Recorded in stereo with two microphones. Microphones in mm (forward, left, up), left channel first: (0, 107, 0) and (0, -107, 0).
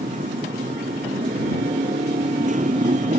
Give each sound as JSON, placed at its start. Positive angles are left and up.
{"t": 0.0, "sound": "a motorcycle", "side_deg": -40}